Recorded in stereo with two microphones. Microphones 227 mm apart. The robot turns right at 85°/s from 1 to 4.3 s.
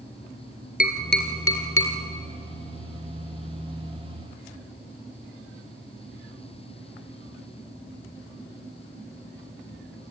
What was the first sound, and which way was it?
Tapping, 40° left (ahead or behind).